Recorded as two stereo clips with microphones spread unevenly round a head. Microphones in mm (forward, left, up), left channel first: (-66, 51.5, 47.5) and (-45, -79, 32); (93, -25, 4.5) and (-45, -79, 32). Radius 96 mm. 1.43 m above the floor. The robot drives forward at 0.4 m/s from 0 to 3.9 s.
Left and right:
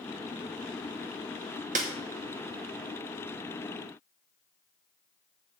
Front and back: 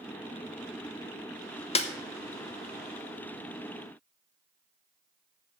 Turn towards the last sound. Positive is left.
turn(degrees=-105)